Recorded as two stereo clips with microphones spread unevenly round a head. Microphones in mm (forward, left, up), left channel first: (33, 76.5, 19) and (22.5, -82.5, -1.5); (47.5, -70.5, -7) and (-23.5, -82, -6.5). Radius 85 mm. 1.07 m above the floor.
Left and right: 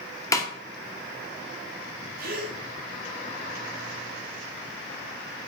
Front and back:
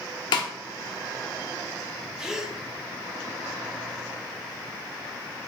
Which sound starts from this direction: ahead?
A snare drum, at 0.3 s.